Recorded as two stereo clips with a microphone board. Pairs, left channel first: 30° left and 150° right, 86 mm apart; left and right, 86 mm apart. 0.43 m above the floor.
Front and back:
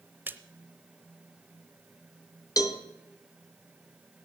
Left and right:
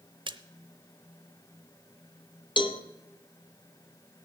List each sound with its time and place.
0.3 s a splash: 85° right, 0.8 m
2.6 s a cowbell: 75° left, 0.9 m